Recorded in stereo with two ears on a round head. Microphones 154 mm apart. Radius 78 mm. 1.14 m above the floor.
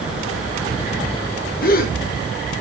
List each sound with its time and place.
1.6 s a gasp: 55° left (ahead or behind), 1.4 m